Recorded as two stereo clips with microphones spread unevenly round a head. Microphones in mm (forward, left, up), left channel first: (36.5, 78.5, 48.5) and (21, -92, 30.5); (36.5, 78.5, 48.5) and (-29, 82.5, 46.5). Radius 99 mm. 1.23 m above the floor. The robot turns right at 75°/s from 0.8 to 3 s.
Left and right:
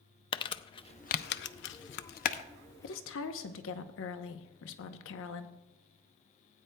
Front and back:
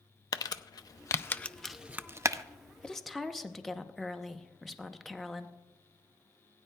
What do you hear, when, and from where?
0.3 s crumpling: 20° left, 0.5 m; by 2.4 s 145° left, 0.5 m
2.8 s a woman speaking: 70° left, 0.8 m; by 5.5 s 85° left, 0.8 m